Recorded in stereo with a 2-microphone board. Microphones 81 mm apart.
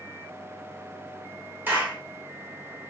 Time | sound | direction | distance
1.7 | a clap | 25° right (ahead or behind) | 1.4 m